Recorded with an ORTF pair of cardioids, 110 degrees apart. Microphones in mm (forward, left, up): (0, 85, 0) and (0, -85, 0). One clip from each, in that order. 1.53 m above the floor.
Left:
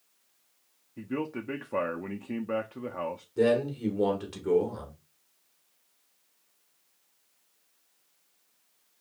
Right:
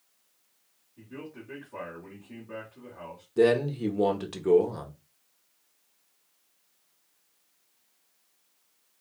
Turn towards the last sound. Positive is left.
turn(degrees=-25)